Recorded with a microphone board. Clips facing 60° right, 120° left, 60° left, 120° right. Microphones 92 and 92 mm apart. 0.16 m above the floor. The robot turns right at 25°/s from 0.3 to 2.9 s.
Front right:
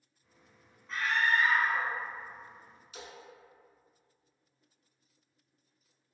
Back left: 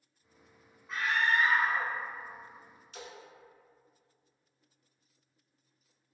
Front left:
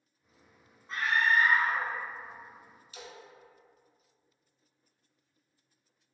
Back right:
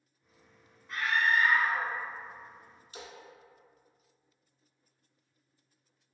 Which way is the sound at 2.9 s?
145° right.